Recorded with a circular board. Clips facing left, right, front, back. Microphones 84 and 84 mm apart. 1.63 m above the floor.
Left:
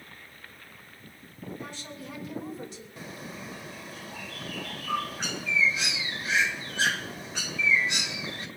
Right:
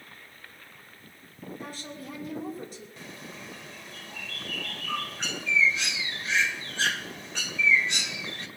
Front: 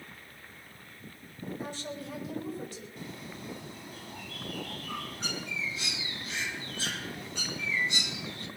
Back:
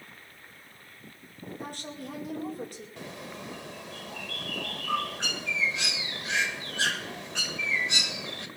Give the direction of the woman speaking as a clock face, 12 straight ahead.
5 o'clock.